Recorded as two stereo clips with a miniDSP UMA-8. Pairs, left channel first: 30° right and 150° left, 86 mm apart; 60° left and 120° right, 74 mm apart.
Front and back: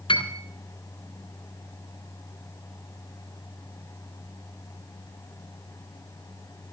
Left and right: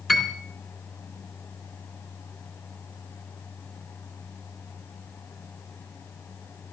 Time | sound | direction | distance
0.1 | a piano | 25° right | 2.5 m